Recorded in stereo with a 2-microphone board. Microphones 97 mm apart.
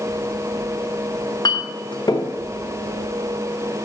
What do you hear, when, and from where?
1.1 s a clink: 50° left (ahead or behind), 1.1 m